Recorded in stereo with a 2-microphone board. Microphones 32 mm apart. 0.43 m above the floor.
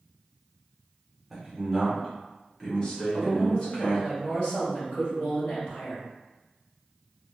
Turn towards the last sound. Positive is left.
turn(degrees=45)  # may be behind; listen again after turning